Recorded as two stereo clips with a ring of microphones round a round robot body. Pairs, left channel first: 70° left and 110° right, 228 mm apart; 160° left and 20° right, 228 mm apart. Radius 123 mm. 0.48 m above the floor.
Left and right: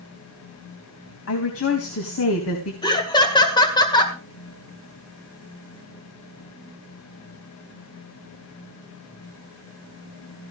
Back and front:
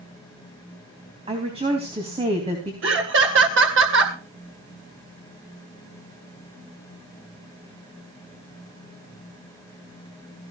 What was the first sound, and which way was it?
A woman speaking, 45° left.